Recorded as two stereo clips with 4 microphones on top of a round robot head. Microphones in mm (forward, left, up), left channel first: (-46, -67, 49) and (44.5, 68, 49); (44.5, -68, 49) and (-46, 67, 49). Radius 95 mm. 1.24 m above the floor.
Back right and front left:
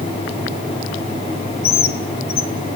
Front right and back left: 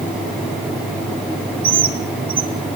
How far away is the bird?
About 1.8 m.